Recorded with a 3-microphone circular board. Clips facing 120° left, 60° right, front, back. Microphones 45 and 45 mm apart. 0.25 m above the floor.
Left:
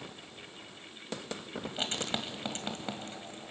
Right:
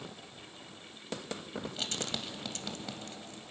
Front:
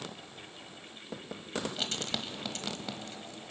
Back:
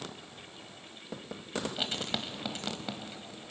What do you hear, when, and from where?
1.6 s writing: 115° left, 1.5 m